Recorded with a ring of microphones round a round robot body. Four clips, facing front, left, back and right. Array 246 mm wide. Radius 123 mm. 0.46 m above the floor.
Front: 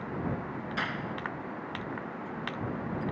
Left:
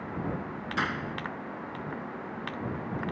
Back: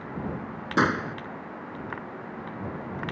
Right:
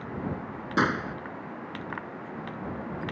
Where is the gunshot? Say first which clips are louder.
Right 6 dB, back 13 dB; 150° right.